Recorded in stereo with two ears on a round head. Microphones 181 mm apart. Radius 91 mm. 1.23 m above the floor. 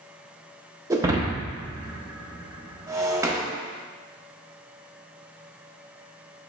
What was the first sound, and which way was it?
Breaking glass, 15° right (ahead or behind).